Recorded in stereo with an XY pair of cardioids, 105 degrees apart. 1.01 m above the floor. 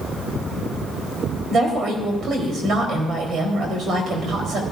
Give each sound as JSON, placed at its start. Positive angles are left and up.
{"t": 1.5, "sound": "a woman speaking", "azimuth_deg": -55, "distance_m": 4.0}